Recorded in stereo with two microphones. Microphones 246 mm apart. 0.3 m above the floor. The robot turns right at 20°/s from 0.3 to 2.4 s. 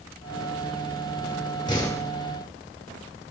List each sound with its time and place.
1.7 s a door slam: 15° left (ahead or behind), 5 m; by 2.1 s 10° left (ahead or behind), 5 m